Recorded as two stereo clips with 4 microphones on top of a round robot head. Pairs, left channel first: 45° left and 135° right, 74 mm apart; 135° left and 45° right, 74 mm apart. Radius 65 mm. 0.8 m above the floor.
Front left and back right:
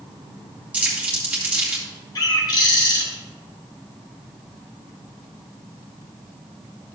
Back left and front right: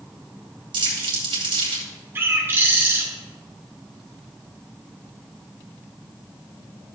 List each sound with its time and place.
0.7 s crumpling: 60° right, 3 m
2.1 s a bird: 15° left, 2.5 m